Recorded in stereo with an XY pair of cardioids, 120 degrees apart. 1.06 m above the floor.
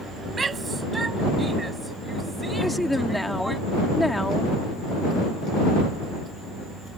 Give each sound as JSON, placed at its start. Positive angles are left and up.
{"t": 0.3, "sound": "a shout", "azimuth_deg": -30}
{"t": 2.6, "sound": "a woman speaking", "azimuth_deg": 5}